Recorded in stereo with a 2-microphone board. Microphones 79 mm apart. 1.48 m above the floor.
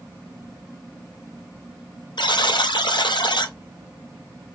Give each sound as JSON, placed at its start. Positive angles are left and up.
{"t": 2.2, "sound": "a buzzer", "side_deg": 75, "distance_m": 0.6}